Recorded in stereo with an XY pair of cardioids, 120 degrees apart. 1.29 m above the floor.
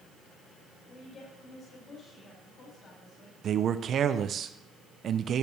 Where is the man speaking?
45° right, 0.7 m.